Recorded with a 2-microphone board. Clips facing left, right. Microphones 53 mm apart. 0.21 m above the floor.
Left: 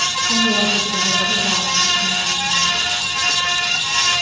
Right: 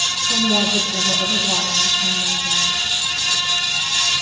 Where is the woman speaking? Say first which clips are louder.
Left 1 dB; 25° left (ahead or behind), 9 m.